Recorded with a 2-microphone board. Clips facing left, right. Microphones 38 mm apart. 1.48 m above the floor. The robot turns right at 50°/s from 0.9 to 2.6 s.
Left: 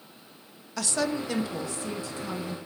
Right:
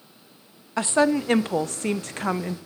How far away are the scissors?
I don't hear scissors.